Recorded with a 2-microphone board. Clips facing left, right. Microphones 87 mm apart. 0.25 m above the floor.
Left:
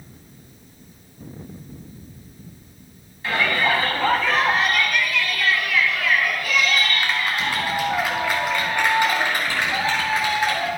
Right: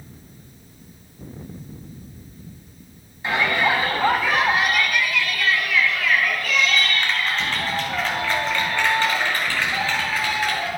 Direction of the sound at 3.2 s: 25° right (ahead or behind).